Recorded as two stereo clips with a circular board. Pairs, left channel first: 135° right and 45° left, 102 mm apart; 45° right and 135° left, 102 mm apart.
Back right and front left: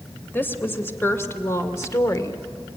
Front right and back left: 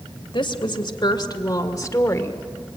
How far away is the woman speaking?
About 2.5 m.